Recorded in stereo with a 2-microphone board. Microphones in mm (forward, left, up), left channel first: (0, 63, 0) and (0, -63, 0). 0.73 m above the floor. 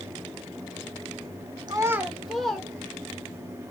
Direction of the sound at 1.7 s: 35° right (ahead or behind).